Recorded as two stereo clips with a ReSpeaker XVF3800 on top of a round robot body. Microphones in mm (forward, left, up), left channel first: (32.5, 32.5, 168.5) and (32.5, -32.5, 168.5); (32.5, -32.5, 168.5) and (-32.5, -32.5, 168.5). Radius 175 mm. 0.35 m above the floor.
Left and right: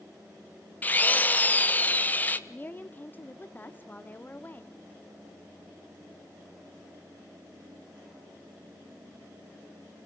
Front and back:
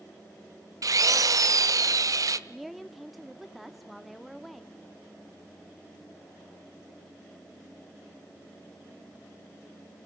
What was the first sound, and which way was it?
A drill, 155° left.